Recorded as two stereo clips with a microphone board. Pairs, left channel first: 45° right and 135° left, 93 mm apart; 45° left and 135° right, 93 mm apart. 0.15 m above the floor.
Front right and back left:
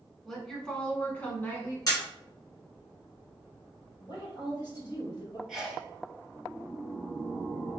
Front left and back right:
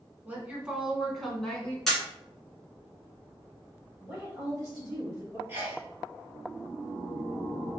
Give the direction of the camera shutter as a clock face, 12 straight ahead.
1 o'clock.